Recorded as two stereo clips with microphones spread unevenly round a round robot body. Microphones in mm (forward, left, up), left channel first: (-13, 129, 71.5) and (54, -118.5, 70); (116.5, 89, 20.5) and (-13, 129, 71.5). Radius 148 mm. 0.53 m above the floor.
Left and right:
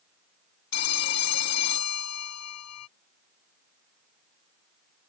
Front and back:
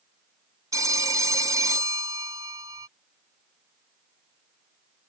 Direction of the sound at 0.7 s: 85° left.